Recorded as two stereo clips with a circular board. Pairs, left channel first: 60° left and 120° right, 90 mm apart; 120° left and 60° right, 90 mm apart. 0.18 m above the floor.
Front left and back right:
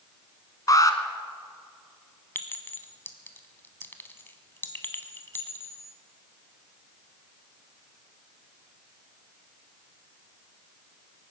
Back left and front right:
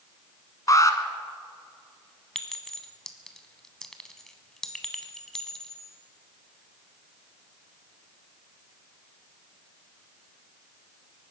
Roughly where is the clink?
Ahead left.